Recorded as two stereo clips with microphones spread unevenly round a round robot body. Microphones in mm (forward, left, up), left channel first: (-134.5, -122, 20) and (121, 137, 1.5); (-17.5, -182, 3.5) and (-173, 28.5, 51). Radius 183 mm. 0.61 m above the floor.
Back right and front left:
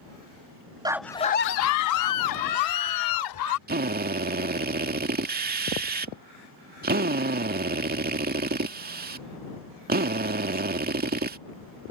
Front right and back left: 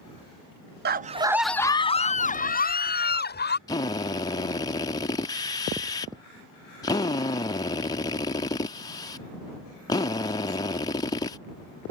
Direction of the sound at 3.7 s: Straight ahead.